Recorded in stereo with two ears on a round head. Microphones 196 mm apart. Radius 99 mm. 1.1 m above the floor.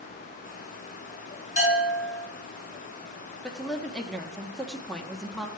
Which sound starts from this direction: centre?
A woman speaking, at 3.4 s.